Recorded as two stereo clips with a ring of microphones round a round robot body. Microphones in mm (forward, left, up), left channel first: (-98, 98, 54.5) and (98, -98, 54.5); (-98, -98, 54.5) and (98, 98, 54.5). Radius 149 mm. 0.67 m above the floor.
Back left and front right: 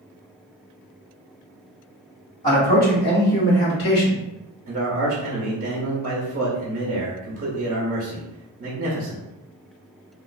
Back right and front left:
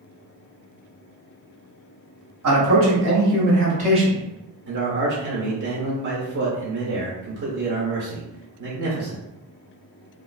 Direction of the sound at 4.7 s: 10° left.